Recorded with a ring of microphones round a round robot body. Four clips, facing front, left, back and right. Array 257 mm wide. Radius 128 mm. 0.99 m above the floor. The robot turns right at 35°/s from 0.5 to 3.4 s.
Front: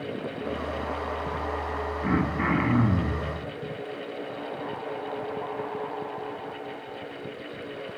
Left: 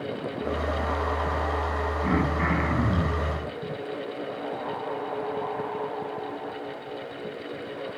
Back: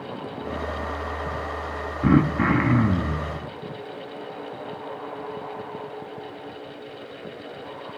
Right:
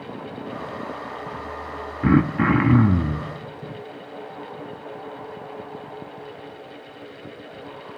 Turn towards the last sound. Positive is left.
turn(degrees=-85)